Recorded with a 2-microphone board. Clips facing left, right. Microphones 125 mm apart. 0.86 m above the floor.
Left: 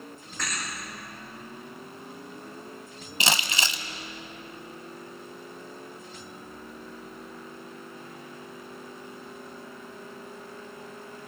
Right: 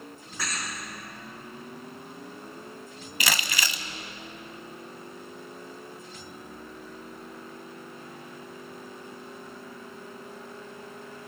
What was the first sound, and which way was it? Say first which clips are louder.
A thud: even; 5° right (ahead or behind).